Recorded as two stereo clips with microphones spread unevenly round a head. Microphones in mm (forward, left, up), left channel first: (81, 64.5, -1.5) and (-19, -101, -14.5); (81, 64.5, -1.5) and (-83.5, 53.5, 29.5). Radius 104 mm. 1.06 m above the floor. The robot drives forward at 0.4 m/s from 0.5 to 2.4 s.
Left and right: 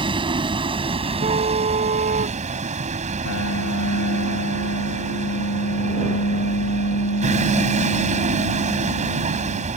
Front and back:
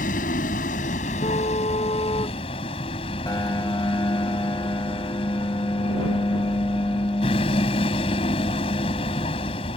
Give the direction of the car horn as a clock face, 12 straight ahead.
2 o'clock.